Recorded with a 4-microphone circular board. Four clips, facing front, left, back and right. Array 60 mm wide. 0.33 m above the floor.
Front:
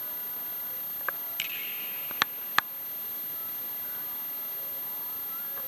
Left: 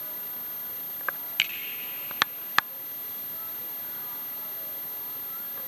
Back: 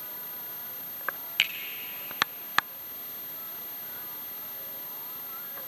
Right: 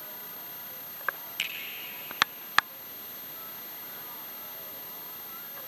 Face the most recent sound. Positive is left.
turn(degrees=145)